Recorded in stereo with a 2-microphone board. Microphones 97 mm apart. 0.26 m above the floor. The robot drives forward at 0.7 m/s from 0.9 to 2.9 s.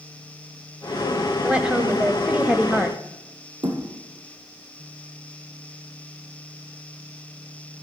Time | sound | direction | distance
1.4 | a woman speaking | 10° right (ahead or behind) | 1.2 m
3.6 | a thud | 60° right (ahead or behind) | 3.5 m